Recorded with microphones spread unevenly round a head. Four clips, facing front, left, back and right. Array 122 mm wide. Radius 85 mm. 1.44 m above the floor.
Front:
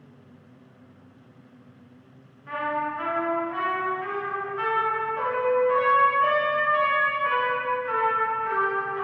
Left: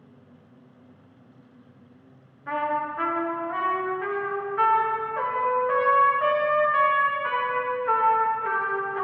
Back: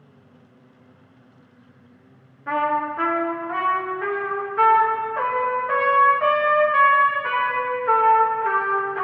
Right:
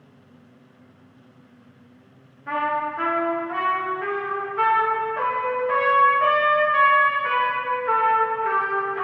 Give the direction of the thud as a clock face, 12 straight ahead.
I don't hear a thud.